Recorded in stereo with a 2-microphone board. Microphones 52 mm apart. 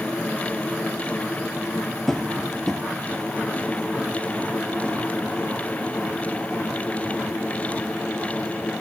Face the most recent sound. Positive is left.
turn(degrees=5)  # may be behind; listen again after turning